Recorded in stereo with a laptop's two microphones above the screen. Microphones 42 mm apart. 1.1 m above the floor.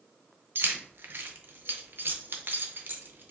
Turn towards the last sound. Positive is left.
turn(degrees=-60)  # may be behind; listen again after turning